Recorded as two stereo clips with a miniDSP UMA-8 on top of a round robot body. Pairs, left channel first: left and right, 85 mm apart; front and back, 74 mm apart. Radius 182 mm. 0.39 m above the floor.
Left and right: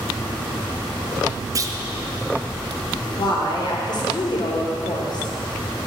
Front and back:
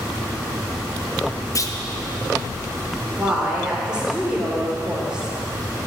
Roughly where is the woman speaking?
Left.